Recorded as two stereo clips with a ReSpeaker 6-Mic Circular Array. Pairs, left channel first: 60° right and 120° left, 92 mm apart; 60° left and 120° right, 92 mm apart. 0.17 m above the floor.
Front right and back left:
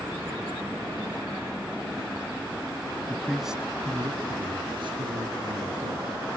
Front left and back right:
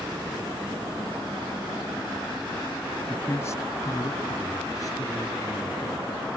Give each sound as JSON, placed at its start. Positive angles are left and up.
{"t": 3.1, "sound": "a man speaking", "azimuth_deg": 0, "distance_m": 1.3}